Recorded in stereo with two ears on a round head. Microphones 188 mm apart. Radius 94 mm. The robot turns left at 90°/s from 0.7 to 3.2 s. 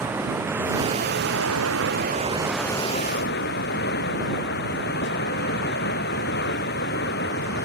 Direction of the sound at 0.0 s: 10° right.